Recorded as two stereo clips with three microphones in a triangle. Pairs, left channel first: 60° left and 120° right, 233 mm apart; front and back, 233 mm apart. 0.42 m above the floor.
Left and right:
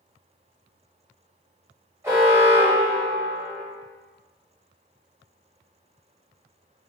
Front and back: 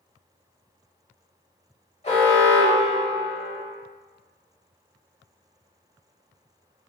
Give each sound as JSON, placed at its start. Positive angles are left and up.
{"t": 2.0, "sound": "an alarm", "azimuth_deg": -45, "distance_m": 1.0}